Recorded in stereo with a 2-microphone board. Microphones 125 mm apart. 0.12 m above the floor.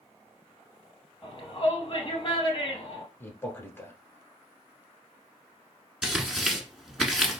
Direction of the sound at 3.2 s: 20° left (ahead or behind).